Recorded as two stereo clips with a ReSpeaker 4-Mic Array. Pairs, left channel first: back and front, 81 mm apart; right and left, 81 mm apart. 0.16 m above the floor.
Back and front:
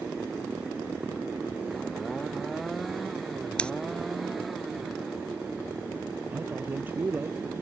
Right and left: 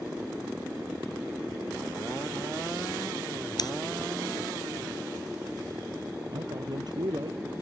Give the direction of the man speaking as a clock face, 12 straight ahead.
10 o'clock.